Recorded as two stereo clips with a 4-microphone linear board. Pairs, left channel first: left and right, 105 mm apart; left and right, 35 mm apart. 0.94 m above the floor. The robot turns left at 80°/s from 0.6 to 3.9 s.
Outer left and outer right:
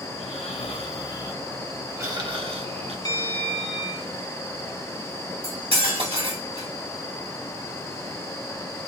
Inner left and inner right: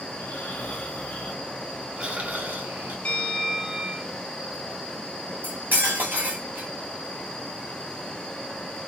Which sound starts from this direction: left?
Snoring, at 0.1 s.